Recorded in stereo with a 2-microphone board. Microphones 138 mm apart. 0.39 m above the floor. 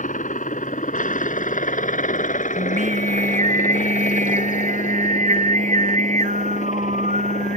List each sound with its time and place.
0.0 s a helicopter: 70° left (ahead or behind); by 7.6 s 60° left (ahead or behind)
2.6 s singing: 70° right (ahead or behind)